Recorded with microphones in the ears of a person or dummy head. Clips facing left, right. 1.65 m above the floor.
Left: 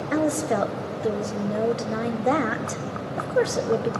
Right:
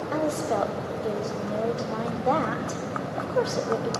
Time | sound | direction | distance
0.1 | a woman speaking | 25° left (ahead or behind) | 1.1 m